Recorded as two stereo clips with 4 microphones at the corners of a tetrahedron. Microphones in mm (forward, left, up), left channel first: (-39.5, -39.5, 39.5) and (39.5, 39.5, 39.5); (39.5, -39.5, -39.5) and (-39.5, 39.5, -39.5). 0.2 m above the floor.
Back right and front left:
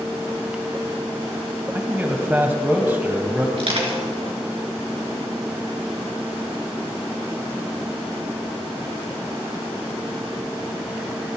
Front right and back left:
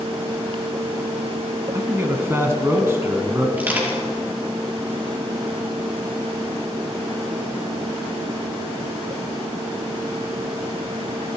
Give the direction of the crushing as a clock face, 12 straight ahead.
10 o'clock.